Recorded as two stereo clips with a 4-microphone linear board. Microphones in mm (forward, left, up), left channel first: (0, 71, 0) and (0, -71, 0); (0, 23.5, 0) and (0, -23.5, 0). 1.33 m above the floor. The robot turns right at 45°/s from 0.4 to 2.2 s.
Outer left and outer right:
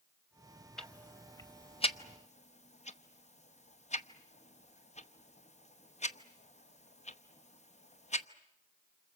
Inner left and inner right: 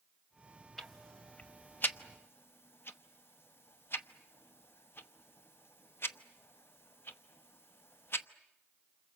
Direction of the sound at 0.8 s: 5° left (ahead or behind).